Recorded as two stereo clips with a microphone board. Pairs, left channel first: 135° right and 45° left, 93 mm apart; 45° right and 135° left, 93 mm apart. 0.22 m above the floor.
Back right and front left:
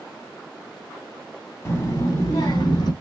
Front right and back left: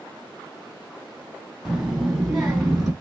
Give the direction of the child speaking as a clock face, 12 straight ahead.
5 o'clock.